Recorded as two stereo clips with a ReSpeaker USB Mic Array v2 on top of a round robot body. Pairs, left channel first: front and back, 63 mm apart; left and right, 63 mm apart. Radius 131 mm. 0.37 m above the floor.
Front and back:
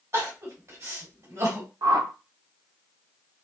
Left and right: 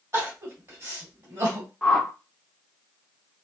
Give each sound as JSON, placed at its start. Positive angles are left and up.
{"t": 0.1, "sound": "crying", "azimuth_deg": -140, "distance_m": 1.8}
{"t": 1.8, "sound": "a whoosh", "azimuth_deg": 170, "distance_m": 0.7}